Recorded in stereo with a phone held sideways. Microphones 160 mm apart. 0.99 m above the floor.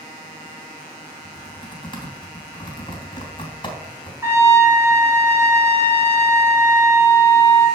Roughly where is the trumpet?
Centre.